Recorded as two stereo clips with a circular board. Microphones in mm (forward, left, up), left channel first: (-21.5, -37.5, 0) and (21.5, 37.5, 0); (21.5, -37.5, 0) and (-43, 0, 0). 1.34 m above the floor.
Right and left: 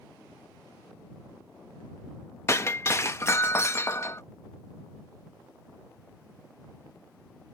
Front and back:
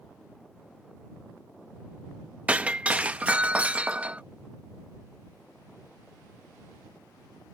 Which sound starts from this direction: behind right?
Breaking glass, at 2.5 s.